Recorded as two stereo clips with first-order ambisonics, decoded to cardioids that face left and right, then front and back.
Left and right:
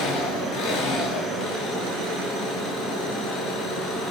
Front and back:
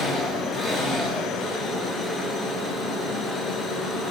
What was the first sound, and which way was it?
An engine running, 90° left.